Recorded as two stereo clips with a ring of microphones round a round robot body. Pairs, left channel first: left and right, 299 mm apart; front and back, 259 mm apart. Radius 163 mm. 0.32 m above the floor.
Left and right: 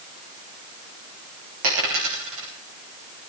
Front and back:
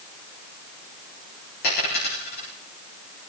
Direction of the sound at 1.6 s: 60° right.